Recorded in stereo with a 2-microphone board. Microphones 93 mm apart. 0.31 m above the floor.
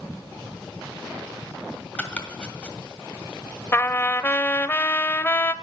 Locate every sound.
2.0 s chopping: 15° left (ahead or behind), 1.9 m
3.7 s a trumpet: 25° left (ahead or behind), 0.6 m